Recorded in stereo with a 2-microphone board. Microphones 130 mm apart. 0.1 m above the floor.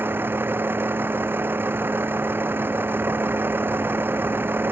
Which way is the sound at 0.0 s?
15° right (ahead or behind).